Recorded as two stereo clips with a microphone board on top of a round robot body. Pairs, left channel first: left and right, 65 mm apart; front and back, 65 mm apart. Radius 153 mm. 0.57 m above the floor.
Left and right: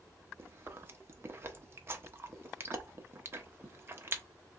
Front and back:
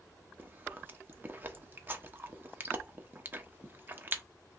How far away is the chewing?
About 1.0 m.